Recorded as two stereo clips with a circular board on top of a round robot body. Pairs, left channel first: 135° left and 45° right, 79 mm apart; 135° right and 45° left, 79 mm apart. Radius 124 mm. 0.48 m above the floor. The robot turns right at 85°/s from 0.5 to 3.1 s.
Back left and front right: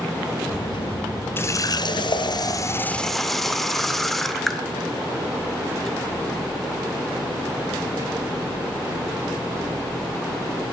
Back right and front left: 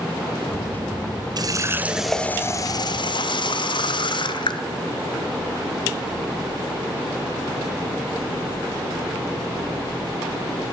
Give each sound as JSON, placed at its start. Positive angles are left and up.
{"t": 1.4, "sound": "a running tap", "azimuth_deg": 75, "distance_m": 1.0}